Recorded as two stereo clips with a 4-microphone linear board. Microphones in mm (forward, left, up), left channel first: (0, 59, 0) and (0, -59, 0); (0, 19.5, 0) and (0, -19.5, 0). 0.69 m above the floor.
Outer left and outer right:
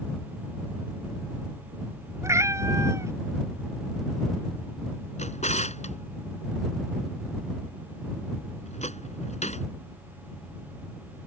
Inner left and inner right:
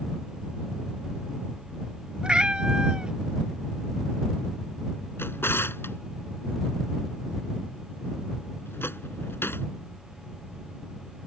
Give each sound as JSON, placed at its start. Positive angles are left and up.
{"t": 2.2, "sound": "a cat meowing", "side_deg": -25}
{"t": 5.2, "sound": "a drawer", "side_deg": 85}